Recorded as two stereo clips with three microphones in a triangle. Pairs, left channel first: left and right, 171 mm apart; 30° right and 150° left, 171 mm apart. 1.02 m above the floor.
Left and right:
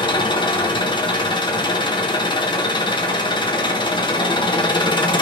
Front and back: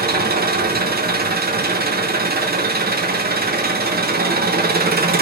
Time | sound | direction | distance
0.0 | an engine running | 150° left | 0.8 m